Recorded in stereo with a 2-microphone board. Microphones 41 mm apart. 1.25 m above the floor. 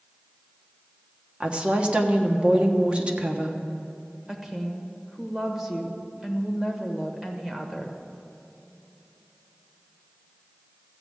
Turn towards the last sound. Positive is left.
turn(degrees=-15)  # may be behind; listen again after turning